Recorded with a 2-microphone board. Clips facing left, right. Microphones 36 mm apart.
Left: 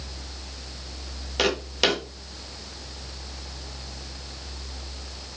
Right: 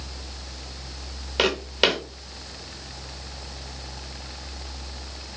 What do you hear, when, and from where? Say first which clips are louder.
1.4 s footsteps: right 2 dB; 15° right (ahead or behind), 0.7 m